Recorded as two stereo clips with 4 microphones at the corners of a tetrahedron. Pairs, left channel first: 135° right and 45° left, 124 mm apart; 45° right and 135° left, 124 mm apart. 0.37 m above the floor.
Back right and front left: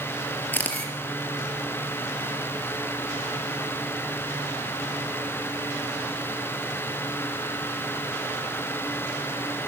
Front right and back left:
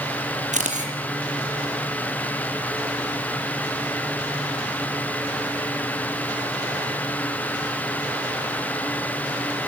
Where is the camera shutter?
150° left, 4.5 m.